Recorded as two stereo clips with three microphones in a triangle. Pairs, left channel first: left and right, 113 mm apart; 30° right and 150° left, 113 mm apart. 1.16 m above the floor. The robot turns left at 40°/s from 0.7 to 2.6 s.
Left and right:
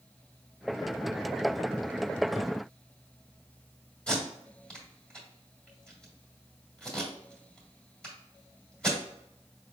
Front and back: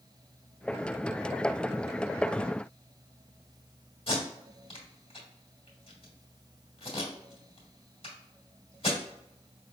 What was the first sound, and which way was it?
Tape being pulled, 5° left.